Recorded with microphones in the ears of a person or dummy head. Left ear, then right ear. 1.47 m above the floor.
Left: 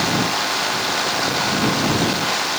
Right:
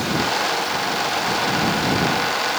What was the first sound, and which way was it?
Only background noise.